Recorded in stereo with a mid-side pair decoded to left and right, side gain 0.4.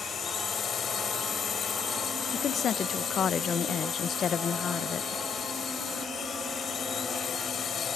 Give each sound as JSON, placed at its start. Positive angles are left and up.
{"t": 0.0, "sound": "a drone", "azimuth_deg": 55}
{"t": 2.3, "sound": "a woman speaking", "azimuth_deg": 65}